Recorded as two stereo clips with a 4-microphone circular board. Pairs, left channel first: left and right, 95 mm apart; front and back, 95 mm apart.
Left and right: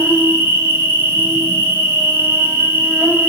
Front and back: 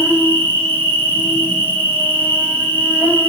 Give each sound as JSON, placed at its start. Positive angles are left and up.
{"t": 0.0, "sound": "an insect", "azimuth_deg": -45, "distance_m": 0.9}